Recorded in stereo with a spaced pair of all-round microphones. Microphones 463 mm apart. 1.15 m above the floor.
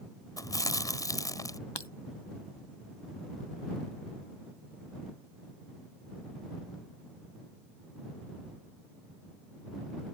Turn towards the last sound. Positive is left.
turn(degrees=60)  # may be behind; listen again after turning